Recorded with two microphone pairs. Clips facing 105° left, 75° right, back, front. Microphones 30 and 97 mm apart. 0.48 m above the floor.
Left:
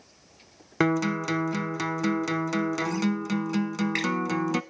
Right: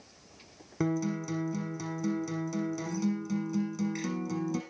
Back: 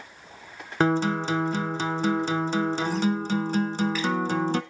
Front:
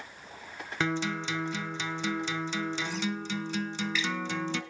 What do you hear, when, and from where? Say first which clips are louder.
0.8 s a guitar: left 7 dB, back 8 dB; 130° left, 1.0 m